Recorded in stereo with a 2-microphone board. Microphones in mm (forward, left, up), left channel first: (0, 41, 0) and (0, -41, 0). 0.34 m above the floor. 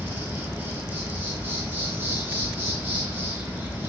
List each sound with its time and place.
0.0 s an insect: 25° right (ahead or behind), 0.8 m